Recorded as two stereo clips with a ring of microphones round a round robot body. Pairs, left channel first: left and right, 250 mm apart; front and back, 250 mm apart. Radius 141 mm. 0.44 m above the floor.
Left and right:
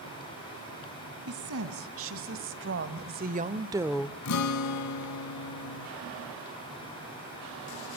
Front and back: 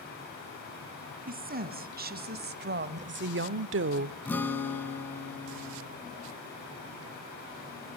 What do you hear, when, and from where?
1.3 s a woman speaking: 125° right, 4 m; by 4.2 s 160° left, 0.9 m
4.2 s a guitar: 85° left, 1.6 m